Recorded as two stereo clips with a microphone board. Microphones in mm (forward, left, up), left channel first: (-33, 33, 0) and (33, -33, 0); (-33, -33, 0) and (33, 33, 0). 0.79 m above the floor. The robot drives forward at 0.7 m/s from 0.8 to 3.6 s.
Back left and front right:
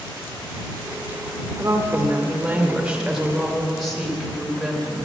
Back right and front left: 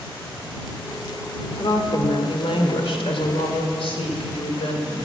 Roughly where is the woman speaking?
Right.